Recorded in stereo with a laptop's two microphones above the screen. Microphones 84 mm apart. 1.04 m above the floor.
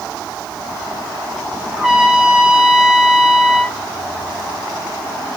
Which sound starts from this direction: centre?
A trumpet, at 1.7 s.